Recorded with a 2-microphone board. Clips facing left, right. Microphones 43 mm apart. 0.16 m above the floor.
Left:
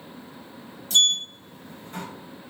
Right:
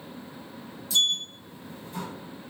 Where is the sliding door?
55° left (ahead or behind), 0.5 m.